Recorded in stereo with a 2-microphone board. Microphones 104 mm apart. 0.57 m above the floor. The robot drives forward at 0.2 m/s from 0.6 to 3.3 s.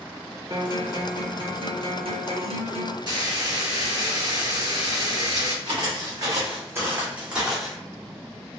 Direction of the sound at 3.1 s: 45° right (ahead or behind).